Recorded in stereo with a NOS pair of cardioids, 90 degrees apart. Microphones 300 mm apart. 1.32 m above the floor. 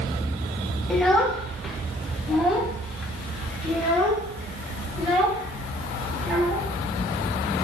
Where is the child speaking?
Straight ahead, 0.7 m.